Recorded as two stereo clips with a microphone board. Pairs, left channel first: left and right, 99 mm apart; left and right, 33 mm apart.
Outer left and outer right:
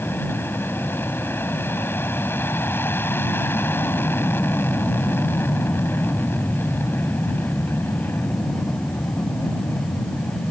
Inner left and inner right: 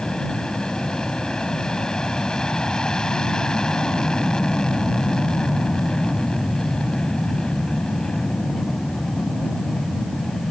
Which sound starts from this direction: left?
An aircraft, at 0.0 s.